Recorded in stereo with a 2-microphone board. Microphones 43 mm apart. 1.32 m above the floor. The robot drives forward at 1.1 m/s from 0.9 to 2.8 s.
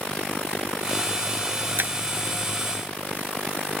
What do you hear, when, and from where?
1.8 s breaking glass: 50° right (ahead or behind)